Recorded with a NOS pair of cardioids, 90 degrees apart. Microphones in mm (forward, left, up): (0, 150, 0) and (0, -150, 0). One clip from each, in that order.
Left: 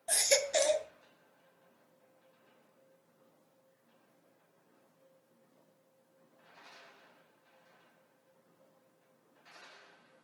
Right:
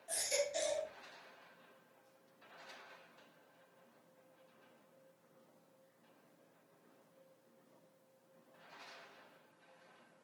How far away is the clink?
I don't hear a clink.